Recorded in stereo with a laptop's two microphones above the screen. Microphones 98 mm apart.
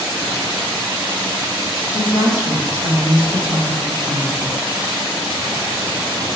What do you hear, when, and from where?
1.9 s a woman speaking: 50° left (ahead or behind), 1.2 m